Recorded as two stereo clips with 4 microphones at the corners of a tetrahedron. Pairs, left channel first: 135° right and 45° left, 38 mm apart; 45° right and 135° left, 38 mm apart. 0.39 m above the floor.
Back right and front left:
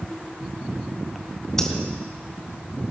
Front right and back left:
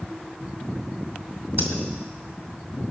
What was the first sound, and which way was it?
Breathing, 145° left.